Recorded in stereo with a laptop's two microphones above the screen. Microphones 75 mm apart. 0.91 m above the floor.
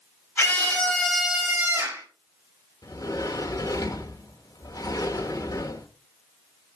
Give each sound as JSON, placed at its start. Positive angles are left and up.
{"t": 0.4, "sound": "a scream", "side_deg": 25, "distance_m": 2.5}
{"t": 2.8, "sound": "a sliding door", "side_deg": 50, "distance_m": 1.0}